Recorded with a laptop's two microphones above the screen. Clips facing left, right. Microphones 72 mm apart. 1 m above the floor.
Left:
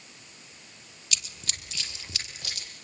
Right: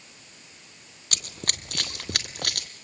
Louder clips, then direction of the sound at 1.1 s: Right 4 dB; 50° right (ahead or behind).